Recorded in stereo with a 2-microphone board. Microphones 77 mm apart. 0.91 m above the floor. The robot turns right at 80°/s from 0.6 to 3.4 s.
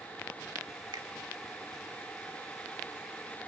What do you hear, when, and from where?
0.9 s a finger snap: 75° right (ahead or behind), 1.5 m